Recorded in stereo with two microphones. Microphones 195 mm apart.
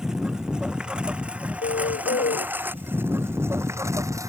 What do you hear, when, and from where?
0.0 s a lawn mower: 5° right (ahead or behind); by 4.3 s 15° right (ahead or behind)
1.6 s a bird: 70° left (ahead or behind)